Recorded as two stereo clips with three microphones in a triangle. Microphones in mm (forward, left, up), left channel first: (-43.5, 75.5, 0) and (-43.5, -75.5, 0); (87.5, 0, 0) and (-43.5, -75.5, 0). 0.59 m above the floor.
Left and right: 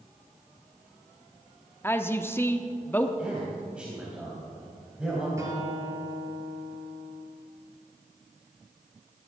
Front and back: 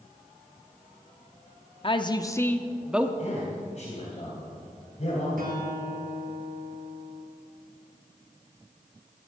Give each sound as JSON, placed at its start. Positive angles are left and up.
{"t": 1.8, "sound": "a woman speaking", "azimuth_deg": 25, "distance_m": 0.8}
{"t": 3.2, "sound": "a man speaking", "azimuth_deg": -5, "distance_m": 3.5}
{"t": 5.4, "sound": "a guitar", "azimuth_deg": -160, "distance_m": 3.0}